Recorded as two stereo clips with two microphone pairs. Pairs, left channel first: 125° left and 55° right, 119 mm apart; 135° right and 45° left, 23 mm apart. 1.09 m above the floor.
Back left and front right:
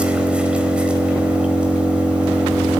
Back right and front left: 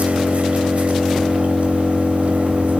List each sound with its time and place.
0.0 s an engine running: 30° left, 4.5 m